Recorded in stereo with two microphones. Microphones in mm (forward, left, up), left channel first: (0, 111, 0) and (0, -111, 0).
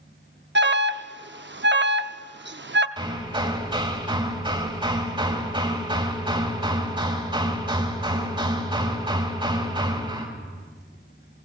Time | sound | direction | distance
0.6 | an alarm | 55° right (ahead or behind) | 0.7 m
3.0 | hammering | 20° right (ahead or behind) | 3.5 m